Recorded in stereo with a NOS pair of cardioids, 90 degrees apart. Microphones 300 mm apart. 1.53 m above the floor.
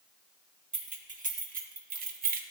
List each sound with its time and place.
0.7 s keys jangling: 25° right, 1.5 m; by 2.4 s 35° right, 0.6 m